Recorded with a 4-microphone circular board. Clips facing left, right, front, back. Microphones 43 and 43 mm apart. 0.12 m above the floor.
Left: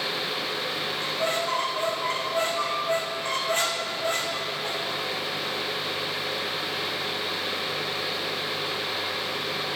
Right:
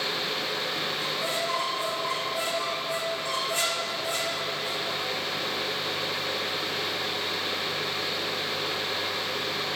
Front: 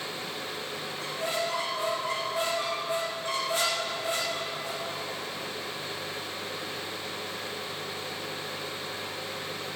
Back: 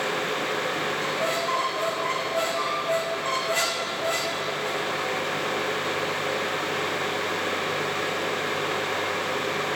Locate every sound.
1.0 s a squeak: 135° left, 1.8 m